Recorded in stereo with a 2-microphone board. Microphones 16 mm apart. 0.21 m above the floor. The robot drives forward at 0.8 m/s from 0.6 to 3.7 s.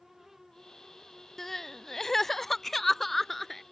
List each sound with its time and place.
1.4 s crying: 20° left (ahead or behind); by 3.6 s 10° left (ahead or behind)